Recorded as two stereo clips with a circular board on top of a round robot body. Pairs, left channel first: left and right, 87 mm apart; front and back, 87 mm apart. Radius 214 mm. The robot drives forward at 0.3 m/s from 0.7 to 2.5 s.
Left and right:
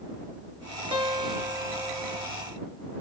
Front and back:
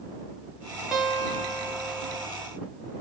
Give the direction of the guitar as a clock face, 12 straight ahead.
3 o'clock.